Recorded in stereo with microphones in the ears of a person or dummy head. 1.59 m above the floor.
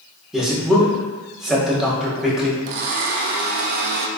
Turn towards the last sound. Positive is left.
turn(degrees=-55)  # may be behind; listen again after turning